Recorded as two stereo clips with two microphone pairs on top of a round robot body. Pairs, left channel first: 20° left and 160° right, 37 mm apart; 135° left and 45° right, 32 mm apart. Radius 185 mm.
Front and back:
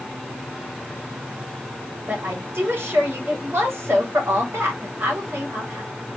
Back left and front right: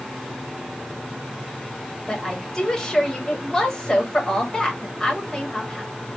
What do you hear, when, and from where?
2.1 s a woman speaking: 150° right, 3 m